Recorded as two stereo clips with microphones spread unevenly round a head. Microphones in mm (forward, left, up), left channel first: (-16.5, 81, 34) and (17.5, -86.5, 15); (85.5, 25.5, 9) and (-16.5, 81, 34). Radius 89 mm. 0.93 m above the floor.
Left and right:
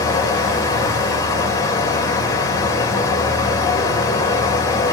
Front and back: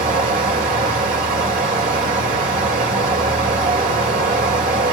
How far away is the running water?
About 1.9 m.